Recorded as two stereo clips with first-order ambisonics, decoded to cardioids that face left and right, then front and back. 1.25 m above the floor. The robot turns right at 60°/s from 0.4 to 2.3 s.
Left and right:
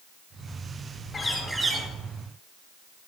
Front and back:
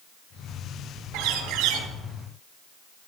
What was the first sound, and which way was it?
A bird, 165° left.